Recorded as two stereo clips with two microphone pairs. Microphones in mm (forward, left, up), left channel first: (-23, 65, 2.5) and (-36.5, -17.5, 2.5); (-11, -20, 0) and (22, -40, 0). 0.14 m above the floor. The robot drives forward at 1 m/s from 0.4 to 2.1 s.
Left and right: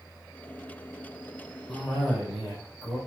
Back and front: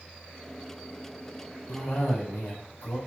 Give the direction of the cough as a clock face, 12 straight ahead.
6 o'clock.